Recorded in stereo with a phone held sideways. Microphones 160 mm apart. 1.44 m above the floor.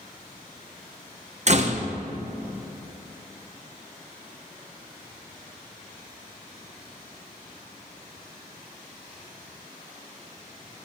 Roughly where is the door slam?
Right.